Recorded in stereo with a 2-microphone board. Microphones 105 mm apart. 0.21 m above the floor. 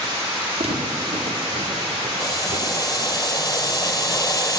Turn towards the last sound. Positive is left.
turn(degrees=35)  # may be behind; listen again after turning